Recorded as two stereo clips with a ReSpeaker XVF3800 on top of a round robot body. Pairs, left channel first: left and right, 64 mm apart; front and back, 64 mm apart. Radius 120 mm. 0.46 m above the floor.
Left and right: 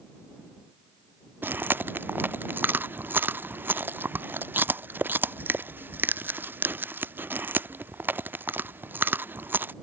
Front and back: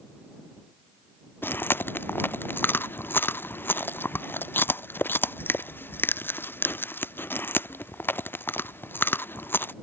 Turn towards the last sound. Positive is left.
turn(degrees=-45)